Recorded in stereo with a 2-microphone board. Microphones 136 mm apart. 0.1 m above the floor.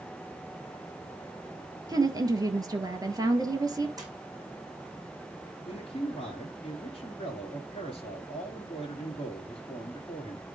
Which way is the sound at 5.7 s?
45° left (ahead or behind).